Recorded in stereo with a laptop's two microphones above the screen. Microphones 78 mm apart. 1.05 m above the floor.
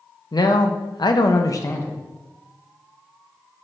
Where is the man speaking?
60° left (ahead or behind), 0.9 m; by 1.9 s 30° left (ahead or behind), 0.8 m.